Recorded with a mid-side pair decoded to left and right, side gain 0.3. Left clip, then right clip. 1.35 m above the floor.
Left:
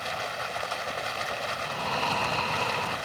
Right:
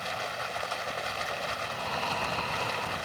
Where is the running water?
20° left.